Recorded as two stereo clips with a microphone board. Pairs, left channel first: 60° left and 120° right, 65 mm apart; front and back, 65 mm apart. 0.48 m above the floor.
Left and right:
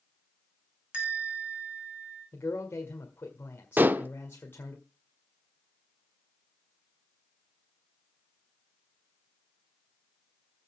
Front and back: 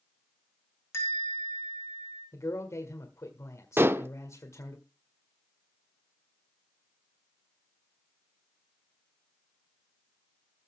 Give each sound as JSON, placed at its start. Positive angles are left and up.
{"t": 0.9, "sound": "a bell", "azimuth_deg": -45, "distance_m": 4.5}
{"t": 2.3, "sound": "a man speaking", "azimuth_deg": 20, "distance_m": 1.7}
{"t": 3.8, "sound": "dishes clattering", "azimuth_deg": -160, "distance_m": 0.6}